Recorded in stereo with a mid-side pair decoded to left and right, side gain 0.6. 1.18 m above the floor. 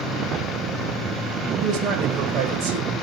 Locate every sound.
1.6 s a man speaking: 65° right, 4.5 m